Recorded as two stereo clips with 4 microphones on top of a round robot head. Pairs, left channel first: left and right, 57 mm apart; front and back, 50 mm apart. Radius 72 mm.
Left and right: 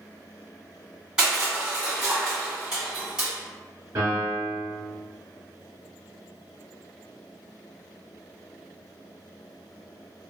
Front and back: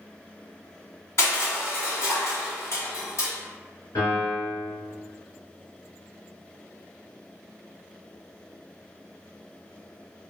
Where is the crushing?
15° right, 2.0 m.